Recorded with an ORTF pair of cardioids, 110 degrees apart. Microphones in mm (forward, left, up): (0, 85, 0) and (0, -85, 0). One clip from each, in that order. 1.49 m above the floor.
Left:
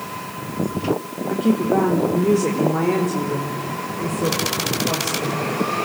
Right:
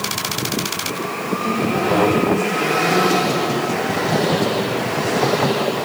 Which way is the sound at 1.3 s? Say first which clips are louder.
Left 2 dB; 40° left.